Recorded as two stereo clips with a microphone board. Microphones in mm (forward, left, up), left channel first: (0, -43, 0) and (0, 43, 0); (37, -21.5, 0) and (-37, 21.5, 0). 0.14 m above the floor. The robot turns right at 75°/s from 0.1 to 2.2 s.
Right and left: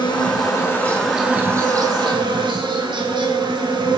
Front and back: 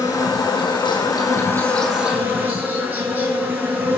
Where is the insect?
75° right, 9.5 m; by 4.0 s 85° left, 9.5 m.